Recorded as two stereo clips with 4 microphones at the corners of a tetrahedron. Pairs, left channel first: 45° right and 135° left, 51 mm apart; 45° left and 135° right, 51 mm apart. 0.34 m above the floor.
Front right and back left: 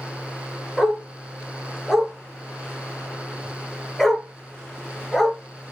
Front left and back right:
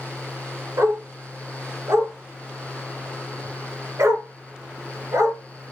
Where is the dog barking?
130° right, 1.6 m.